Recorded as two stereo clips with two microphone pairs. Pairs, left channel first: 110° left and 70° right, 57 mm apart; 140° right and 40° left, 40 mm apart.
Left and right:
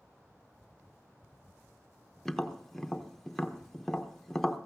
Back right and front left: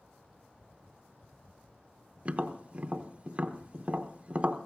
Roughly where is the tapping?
Ahead left.